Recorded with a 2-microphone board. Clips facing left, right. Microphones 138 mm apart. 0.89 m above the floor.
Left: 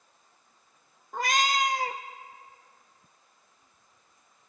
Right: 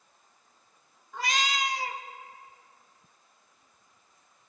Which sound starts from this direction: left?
A cat meowing, at 1.1 s.